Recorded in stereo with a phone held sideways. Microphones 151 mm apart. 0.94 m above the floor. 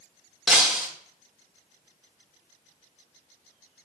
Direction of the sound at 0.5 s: Centre (ahead or behind).